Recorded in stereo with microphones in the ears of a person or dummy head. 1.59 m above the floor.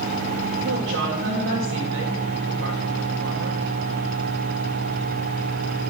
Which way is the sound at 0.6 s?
70° right (ahead or behind).